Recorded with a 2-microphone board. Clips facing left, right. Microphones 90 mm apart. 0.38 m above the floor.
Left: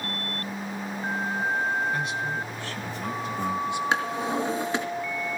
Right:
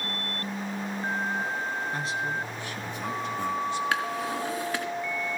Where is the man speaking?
35° right (ahead or behind), 3 m; by 3.8 s 15° left (ahead or behind), 3 m.